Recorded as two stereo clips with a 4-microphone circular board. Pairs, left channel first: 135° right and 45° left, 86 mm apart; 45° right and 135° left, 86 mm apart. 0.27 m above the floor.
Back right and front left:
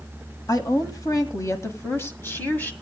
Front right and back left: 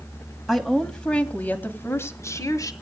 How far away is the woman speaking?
About 1.8 m.